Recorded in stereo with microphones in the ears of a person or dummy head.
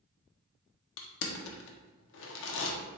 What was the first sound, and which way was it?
Crushing, 70° left (ahead or behind).